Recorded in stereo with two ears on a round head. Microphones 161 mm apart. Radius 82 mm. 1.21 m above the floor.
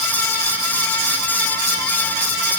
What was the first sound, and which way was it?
Only background noise.